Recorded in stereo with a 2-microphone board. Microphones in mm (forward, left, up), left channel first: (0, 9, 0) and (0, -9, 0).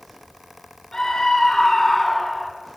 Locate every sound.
0.9 s a scream: 35° left (ahead or behind), 3.5 m; by 2.5 s 5° left (ahead or behind), 1.8 m